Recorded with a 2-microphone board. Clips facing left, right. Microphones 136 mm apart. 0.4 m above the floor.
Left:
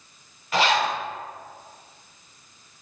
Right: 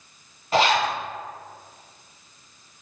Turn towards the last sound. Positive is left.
turn(degrees=-30)  # may be behind; listen again after turning